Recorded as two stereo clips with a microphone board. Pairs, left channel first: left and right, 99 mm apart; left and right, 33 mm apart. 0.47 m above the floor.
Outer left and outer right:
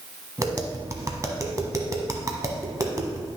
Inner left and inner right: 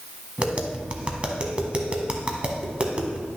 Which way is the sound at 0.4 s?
35° right (ahead or behind).